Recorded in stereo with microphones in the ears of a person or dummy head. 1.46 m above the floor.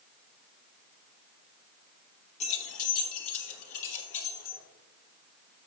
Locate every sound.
2.4 s keys jangling: 35° left (ahead or behind), 1.5 m; by 4.6 s 70° left (ahead or behind), 3 m